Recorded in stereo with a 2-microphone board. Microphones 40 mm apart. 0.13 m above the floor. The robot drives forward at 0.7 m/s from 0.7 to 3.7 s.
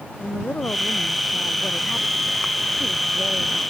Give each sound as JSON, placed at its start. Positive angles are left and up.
{"t": 0.2, "sound": "a woman speaking", "side_deg": 55}